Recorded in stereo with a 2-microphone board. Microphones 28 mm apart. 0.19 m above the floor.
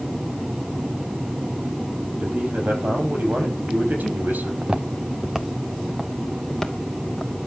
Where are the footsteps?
35° right (ahead or behind), 1.2 m; by 7.3 s 20° left (ahead or behind), 2.5 m.